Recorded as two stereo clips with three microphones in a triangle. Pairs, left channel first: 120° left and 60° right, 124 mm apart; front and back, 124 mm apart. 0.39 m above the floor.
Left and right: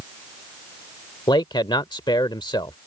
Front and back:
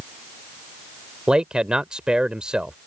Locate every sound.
1.3 s a man speaking: 100° left